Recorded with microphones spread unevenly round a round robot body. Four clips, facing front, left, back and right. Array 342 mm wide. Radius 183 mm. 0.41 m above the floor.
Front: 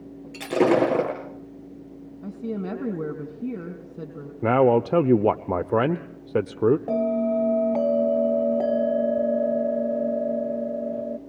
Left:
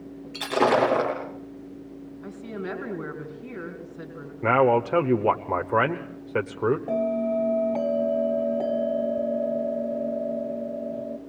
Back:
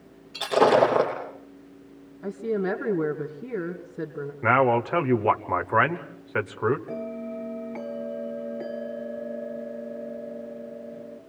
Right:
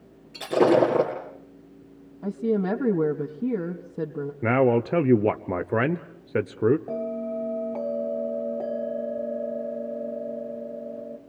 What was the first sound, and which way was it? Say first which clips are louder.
Breaking glass: right 2 dB, back 1 dB; 30° right.